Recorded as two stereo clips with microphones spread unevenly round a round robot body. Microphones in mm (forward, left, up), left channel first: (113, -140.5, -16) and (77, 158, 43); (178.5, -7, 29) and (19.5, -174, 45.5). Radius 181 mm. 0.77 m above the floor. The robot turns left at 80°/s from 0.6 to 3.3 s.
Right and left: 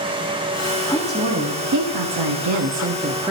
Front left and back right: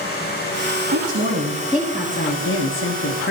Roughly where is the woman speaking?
Behind right.